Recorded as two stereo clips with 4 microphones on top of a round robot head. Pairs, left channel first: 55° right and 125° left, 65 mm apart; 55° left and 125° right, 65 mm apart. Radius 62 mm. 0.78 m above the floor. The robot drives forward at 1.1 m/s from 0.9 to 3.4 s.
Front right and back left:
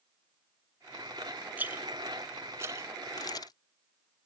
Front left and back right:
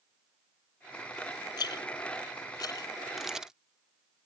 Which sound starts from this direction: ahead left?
A rattle, at 1.6 s.